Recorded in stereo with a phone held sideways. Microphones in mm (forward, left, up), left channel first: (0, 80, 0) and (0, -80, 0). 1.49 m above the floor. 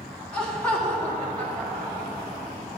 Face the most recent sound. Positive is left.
turn(degrees=5)  # may be behind; listen again after turning